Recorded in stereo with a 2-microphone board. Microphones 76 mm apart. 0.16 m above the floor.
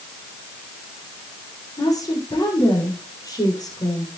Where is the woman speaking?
50° left (ahead or behind), 8.5 m.